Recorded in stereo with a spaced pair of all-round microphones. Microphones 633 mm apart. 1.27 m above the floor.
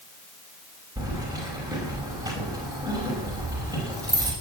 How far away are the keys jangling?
About 5.5 m.